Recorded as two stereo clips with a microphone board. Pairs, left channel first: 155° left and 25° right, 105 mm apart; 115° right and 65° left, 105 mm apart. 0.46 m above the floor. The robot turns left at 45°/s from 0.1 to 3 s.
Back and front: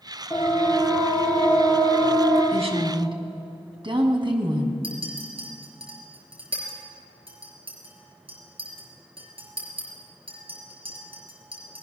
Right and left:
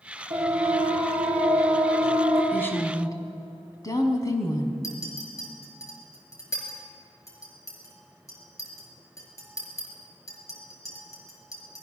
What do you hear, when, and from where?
0.3 s a siren: 75° left, 8 m; by 2.4 s straight ahead, 9 m
2.5 s a woman speaking: 35° right, 3.5 m; by 4.7 s 60° right, 3.5 m
4.8 s a clink: 55° right, 5 m